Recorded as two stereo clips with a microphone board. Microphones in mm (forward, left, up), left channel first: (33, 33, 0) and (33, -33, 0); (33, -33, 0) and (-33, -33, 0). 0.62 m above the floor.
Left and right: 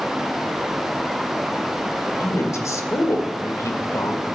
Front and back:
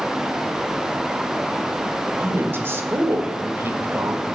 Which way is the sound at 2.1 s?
125° left.